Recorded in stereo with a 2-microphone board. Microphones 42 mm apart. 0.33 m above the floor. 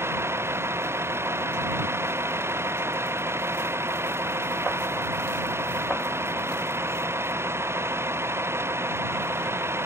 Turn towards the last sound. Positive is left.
turn(degrees=-85)